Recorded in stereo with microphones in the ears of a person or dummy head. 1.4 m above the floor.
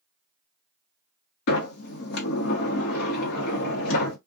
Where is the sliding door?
60° left (ahead or behind), 0.8 m.